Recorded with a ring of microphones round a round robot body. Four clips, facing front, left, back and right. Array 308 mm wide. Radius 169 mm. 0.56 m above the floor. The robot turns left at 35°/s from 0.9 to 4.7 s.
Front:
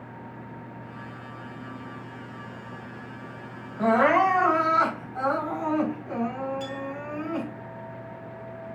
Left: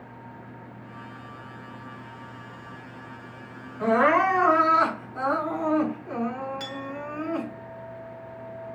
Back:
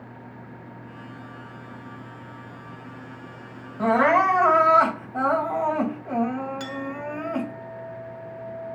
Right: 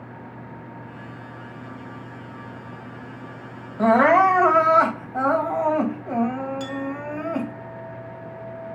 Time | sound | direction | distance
3.8 | crying | 90° right | 3.5 m
6.6 | a clink | 175° left | 1.8 m